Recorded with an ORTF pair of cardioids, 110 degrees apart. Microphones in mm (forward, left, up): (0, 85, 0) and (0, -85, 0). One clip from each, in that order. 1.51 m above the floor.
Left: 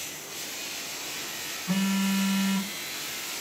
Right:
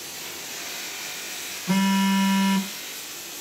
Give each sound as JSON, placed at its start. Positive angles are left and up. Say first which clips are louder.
{"t": 1.7, "sound": "a phone buzzing", "louder": "right 7 dB", "azimuth_deg": -25, "distance_m": 1.3}